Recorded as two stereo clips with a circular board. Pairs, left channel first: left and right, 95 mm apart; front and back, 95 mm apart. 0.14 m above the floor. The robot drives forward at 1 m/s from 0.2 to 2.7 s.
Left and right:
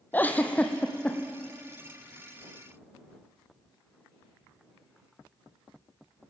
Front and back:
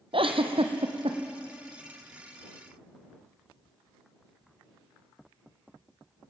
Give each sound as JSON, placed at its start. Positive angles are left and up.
{"t": 0.1, "sound": "a giggle", "azimuth_deg": 160, "distance_m": 1.4}